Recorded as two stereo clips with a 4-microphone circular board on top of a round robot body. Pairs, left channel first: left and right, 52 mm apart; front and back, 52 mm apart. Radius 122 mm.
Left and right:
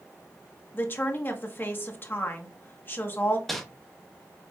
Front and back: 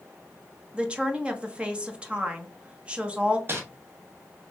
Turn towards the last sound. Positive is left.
turn(degrees=175)